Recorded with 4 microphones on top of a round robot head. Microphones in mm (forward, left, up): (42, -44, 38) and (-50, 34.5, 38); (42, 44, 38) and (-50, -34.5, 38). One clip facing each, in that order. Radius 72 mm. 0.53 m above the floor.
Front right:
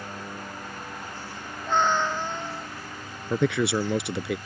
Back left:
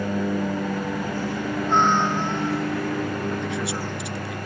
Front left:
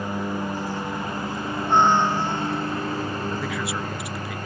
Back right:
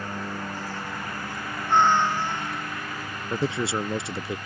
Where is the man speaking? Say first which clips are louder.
Front right 3 dB, back right 2 dB; 75° right.